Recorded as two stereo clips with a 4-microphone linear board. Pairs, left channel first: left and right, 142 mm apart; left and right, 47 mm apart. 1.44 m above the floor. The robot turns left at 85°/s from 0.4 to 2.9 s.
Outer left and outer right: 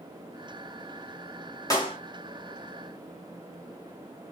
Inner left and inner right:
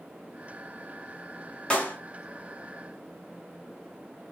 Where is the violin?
No violin in this recording.